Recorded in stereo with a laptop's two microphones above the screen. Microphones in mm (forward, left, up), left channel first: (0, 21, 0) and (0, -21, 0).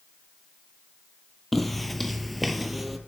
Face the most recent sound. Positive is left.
turn(degrees=0)  # may be behind; listen again after turning